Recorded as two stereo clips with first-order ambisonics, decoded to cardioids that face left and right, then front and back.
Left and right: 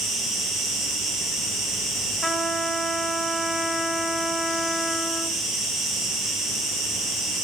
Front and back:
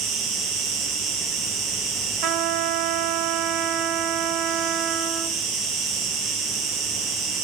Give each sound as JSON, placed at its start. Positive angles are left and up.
{"t": 0.0, "sound": "an insect", "azimuth_deg": -155, "distance_m": 3.0}
{"t": 2.2, "sound": "a trumpet", "azimuth_deg": -175, "distance_m": 0.6}